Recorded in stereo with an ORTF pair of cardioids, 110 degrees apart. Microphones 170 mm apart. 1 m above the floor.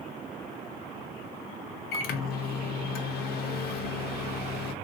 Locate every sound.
1.9 s a microwave: 65° left, 0.6 m